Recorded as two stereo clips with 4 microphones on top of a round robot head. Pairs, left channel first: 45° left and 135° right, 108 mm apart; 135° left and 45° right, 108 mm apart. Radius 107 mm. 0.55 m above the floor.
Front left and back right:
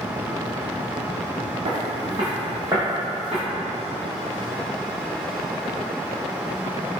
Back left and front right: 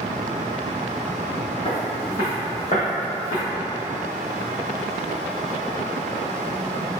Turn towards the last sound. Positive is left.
turn(degrees=135)